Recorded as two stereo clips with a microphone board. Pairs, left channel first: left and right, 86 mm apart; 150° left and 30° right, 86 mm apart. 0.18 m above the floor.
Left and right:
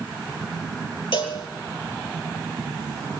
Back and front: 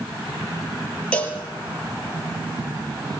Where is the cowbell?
75° left, 5.5 m.